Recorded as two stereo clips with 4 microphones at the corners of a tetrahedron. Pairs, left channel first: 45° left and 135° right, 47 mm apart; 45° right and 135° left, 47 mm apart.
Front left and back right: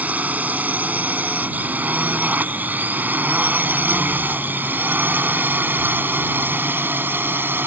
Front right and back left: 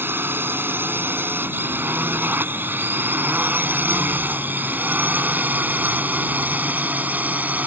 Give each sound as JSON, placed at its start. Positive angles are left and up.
{"t": 0.0, "sound": "a drone", "azimuth_deg": 170}